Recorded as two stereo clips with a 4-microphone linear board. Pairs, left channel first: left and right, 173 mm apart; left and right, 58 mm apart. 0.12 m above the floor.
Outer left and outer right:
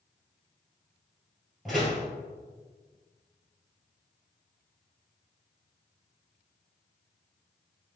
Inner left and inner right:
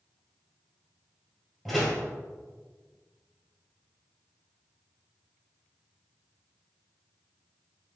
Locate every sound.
1.6 s a door slam: centre (ahead or behind), 1.7 m